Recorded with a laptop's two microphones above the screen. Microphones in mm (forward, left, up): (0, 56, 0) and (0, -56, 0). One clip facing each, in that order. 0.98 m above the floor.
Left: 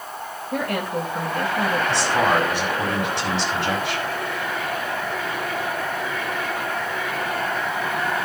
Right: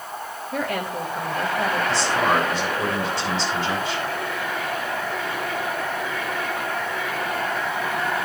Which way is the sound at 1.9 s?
65° left (ahead or behind).